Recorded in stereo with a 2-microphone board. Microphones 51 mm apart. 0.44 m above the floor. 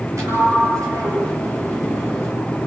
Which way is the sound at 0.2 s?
75° right (ahead or behind).